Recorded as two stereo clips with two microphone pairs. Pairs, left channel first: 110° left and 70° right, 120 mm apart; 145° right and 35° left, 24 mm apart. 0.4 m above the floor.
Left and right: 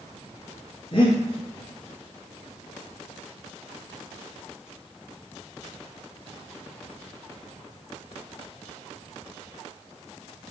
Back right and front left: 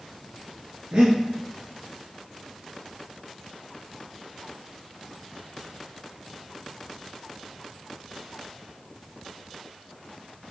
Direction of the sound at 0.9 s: 70° left.